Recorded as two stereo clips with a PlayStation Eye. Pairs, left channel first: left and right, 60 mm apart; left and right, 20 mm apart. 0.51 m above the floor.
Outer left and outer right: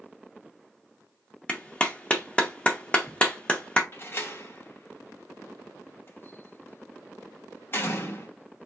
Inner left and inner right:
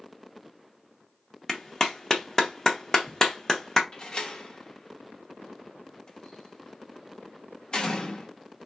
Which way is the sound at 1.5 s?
20° left (ahead or behind).